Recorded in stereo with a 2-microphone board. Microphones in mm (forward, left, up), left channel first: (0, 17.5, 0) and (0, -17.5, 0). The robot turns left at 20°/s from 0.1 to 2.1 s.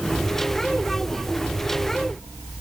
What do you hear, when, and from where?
Only background noise.